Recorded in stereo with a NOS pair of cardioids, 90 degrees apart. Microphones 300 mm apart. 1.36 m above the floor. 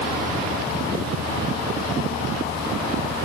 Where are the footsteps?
I don't hear footsteps.